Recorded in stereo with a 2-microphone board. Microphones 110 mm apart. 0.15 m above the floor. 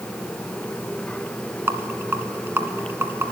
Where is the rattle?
20° right (ahead or behind), 1.2 m.